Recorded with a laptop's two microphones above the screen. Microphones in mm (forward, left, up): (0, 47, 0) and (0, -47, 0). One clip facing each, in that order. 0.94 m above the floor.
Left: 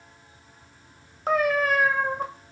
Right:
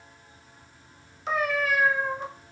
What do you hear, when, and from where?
1.3 s a cat meowing: 50° left (ahead or behind), 0.5 m